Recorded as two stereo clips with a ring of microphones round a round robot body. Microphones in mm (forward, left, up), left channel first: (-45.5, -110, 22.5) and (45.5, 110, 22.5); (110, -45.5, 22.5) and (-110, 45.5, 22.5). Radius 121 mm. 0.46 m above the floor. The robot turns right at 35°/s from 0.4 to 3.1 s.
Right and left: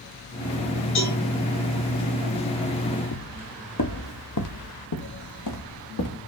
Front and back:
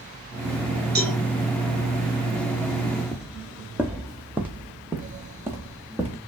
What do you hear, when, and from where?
0.9 s a cowbell: 155° right, 5 m; by 1.2 s 145° right, 5 m
3.1 s footsteps: 110° right, 0.7 m; by 6.2 s 120° right, 3 m